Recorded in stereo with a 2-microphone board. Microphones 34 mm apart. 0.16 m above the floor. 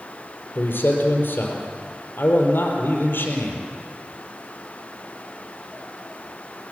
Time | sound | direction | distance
0.6 | a man speaking | 70° left (ahead or behind) | 4.5 m